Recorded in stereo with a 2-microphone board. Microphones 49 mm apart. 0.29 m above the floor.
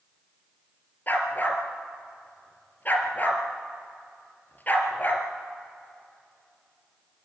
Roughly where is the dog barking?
Left.